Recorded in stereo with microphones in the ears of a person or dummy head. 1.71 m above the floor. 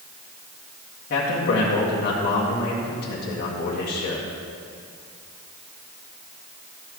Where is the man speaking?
50° left (ahead or behind), 1.8 m.